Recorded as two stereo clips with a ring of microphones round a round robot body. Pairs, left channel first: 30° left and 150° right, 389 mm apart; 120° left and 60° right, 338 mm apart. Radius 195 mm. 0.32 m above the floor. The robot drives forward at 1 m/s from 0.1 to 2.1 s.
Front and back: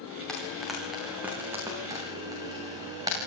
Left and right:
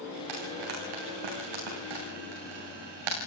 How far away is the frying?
About 9 m.